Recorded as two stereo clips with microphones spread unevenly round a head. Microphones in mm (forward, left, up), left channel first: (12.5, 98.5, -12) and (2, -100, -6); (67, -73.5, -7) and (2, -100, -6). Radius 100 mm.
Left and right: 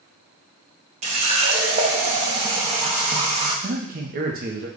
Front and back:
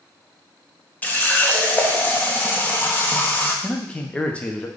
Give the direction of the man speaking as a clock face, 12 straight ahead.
2 o'clock.